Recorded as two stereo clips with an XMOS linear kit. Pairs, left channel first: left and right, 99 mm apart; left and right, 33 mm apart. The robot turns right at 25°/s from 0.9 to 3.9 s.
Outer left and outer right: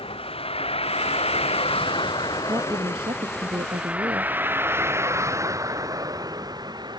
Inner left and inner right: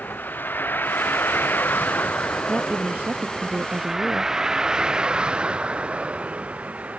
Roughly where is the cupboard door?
I don't hear a cupboard door.